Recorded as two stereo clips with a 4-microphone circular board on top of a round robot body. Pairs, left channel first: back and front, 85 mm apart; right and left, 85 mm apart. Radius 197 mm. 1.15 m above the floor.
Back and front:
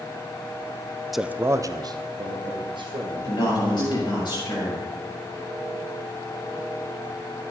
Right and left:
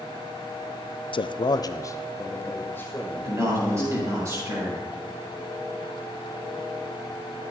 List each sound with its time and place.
1.1 s a man speaking: 90° right, 0.5 m; by 4.2 s 15° right, 2.5 m
3.2 s a man speaking: 145° left, 5.5 m